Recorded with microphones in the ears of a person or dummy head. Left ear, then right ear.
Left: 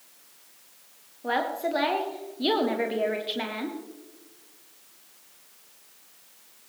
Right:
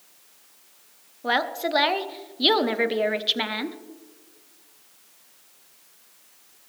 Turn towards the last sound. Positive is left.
turn(degrees=-25)  # may be behind; listen again after turning